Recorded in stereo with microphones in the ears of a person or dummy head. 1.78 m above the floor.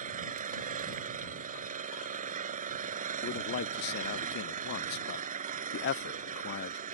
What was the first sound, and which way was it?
An engine running, 45° right (ahead or behind).